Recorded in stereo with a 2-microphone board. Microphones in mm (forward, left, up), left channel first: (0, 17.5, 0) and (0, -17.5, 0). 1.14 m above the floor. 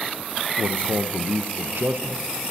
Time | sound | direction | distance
0.6 | a man speaking | 70° right (ahead or behind) | 0.6 m